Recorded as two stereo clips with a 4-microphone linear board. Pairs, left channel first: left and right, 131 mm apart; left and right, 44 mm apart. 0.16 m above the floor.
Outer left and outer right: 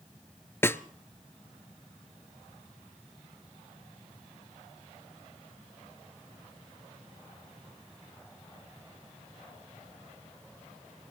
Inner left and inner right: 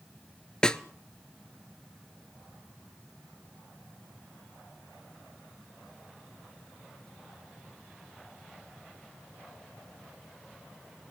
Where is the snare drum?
20° left (ahead or behind), 0.9 m.